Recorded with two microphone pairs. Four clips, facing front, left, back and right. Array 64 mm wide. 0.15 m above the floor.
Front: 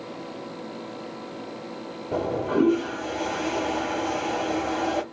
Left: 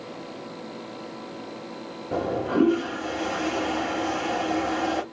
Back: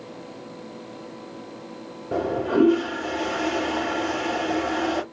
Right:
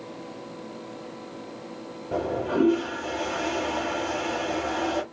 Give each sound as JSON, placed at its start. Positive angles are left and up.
{"t": 2.1, "sound": "a toilet flushing", "azimuth_deg": 160, "distance_m": 3.5}